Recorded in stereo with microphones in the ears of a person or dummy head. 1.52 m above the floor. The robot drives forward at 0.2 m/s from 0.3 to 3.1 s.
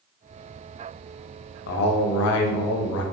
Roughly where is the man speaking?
Left.